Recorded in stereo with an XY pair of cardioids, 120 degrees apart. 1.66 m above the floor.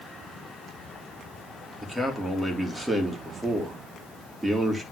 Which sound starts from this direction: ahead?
A man speaking, at 1.8 s.